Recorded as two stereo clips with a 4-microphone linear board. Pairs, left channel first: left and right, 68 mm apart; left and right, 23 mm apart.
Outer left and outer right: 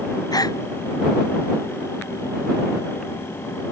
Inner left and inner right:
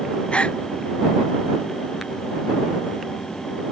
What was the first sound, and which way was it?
A gasp, 70° left (ahead or behind).